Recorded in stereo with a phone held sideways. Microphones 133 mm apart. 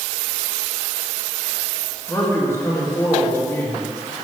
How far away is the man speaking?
About 1.9 m.